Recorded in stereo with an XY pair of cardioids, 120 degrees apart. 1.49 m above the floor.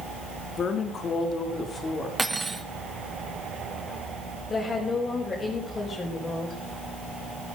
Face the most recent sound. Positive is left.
turn(degrees=30)